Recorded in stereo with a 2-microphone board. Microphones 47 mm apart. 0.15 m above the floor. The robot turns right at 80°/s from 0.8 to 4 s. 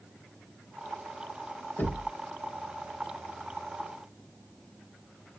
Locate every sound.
1.8 s knocking: 45° left (ahead or behind), 1.3 m; by 2.1 s 55° left (ahead or behind), 1.3 m